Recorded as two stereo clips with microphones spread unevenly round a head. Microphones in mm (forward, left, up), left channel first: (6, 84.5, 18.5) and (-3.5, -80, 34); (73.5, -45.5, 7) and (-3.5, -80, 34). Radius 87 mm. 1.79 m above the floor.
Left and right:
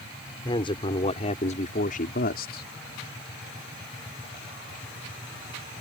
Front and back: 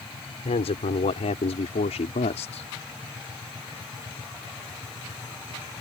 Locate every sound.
0.5 s a man speaking: 20° left; by 2.7 s 55° left